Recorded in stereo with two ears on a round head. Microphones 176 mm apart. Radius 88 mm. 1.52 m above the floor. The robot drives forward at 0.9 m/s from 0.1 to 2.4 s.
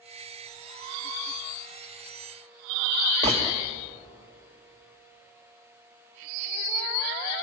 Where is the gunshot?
35° right (ahead or behind), 1.9 m.